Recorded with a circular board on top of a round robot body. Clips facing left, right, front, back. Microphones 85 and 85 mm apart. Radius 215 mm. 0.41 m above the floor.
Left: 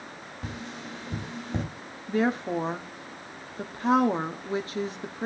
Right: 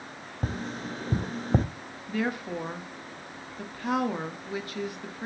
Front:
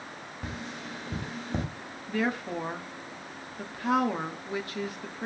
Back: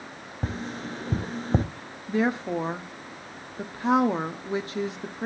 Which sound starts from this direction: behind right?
Tapping, at 0.4 s.